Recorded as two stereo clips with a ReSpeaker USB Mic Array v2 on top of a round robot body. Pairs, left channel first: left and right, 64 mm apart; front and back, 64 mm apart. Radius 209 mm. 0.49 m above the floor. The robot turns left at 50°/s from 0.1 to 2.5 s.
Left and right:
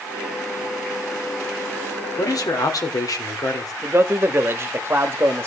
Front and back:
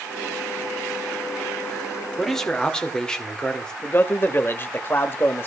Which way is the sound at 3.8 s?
50° right.